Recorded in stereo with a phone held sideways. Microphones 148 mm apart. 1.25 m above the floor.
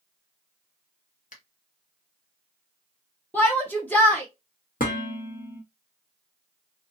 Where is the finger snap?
60° left (ahead or behind), 0.8 m.